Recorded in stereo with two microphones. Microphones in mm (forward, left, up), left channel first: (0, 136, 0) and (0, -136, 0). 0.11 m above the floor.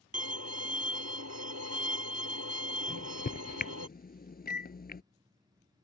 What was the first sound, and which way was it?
A violin, 65° right (ahead or behind).